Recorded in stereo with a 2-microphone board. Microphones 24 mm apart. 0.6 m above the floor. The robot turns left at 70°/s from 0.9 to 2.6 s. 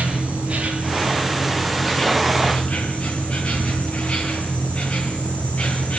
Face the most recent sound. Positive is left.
turn(degrees=120)